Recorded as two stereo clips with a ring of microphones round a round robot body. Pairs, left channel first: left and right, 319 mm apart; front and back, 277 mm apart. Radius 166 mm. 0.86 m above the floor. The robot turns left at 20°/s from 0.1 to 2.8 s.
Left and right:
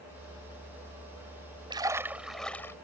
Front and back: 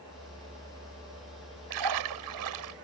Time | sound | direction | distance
1.7 | a splash | 165° right | ?